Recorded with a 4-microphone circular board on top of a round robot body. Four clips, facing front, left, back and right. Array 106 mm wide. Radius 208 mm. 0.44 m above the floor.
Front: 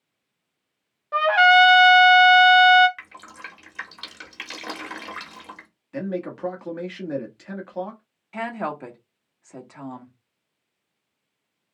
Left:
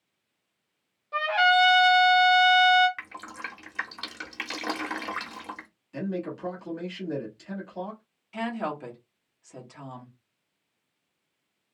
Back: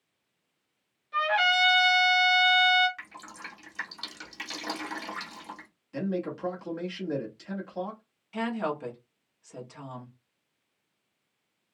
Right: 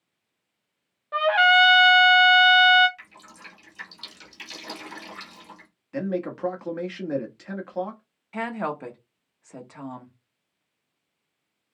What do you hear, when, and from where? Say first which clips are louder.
1.1 s a trumpet: right 3 dB, front 10 dB; 25° right, 0.5 m
3.0 s dripping: left 8 dB, front 3 dB; 75° left, 1.1 m
5.9 s a man speaking: right 4 dB, front 2 dB; 60° right, 1.6 m
8.3 s a woman speaking: right 2 dB, front 2 dB; 50° right, 1.5 m